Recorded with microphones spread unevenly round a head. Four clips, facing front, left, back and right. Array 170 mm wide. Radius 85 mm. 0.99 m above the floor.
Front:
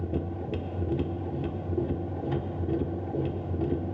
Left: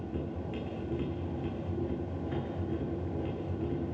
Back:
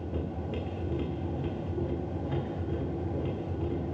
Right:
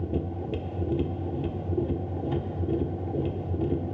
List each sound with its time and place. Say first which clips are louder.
0.0 s a machine running: right 6 dB, front 3 dB; 65° right, 1.0 m